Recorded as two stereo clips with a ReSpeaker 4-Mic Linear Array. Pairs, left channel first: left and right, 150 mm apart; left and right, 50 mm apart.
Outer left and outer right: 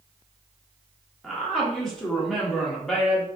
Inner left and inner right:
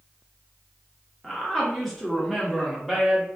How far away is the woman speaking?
About 1.0 m.